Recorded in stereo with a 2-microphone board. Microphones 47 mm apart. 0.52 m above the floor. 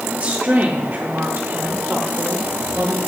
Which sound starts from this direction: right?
A woman speaking, at 0.1 s.